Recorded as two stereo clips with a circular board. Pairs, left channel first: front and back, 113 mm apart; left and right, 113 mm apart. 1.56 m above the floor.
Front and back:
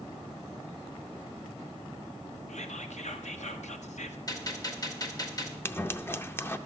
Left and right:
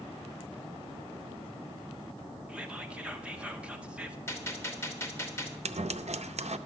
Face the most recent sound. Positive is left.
turn(degrees=-70)